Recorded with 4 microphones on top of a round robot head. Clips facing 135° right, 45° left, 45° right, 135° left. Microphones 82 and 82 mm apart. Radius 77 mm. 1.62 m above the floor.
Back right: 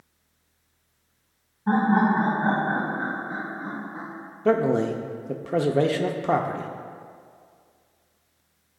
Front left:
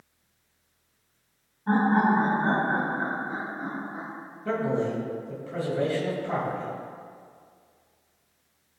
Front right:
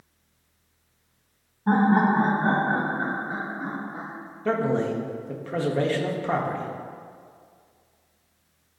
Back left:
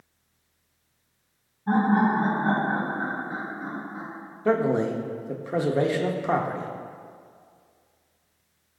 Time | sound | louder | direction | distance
1.7 | laughter | back right 1 dB, front right 2 dB | 60° right | 1.6 m
4.5 | a man speaking | back right 6 dB, back left 2 dB | 150° right | 0.7 m